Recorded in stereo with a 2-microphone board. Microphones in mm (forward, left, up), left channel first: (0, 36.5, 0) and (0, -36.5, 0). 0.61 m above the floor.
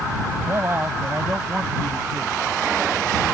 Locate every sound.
0.4 s a man speaking: 35° right (ahead or behind); by 2.4 s 10° right (ahead or behind)